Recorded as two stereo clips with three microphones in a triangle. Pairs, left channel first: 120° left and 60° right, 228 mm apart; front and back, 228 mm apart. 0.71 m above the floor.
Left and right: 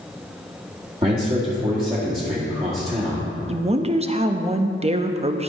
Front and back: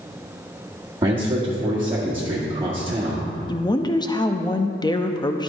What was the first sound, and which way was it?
A man speaking, 115° right.